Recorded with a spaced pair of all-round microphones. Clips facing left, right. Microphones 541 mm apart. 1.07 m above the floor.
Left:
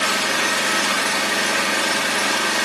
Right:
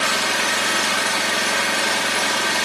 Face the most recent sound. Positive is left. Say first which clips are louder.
# left 1 dB
turn(degrees=-25)  # may be behind; listen again after turning